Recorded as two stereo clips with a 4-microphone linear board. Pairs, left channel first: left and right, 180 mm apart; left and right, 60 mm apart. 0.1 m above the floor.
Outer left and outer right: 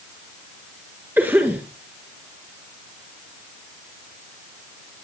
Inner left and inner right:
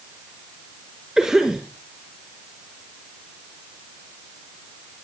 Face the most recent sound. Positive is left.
turn(degrees=-10)  # may be behind; listen again after turning